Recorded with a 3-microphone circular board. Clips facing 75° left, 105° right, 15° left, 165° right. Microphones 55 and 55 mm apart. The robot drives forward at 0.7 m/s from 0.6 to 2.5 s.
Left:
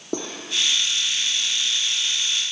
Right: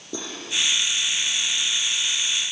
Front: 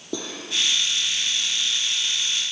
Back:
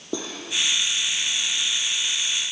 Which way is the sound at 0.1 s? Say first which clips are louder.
Left 4 dB, back 1 dB; 115° left.